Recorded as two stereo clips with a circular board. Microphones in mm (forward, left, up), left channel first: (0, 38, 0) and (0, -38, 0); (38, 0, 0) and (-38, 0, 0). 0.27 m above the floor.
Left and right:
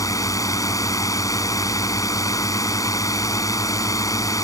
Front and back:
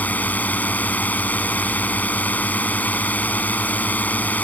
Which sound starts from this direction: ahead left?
A drone, at 0.0 s.